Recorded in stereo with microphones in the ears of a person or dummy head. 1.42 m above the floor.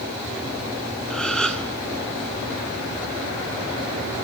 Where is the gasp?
5° left (ahead or behind), 0.8 m.